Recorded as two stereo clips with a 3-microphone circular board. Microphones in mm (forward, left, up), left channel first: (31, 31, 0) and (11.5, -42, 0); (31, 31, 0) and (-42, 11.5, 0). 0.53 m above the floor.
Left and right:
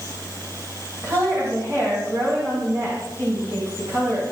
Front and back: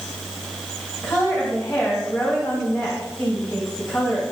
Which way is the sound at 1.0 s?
55° right.